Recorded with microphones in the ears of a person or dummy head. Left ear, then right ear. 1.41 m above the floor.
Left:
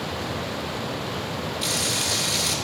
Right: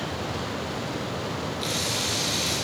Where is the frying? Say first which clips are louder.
Left 3 dB; 20° left (ahead or behind), 6 m.